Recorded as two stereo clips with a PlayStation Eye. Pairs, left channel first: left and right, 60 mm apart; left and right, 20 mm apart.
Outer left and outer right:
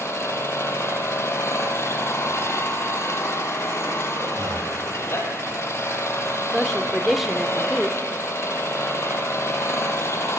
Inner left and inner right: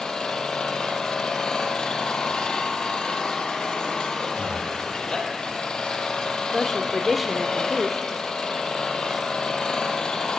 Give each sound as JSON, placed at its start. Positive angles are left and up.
{"t": 0.0, "sound": "an engine running", "side_deg": 55, "distance_m": 4.0}
{"t": 4.3, "sound": "breathing", "side_deg": -85, "distance_m": 5.5}
{"t": 6.5, "sound": "a woman speaking", "side_deg": -5, "distance_m": 1.1}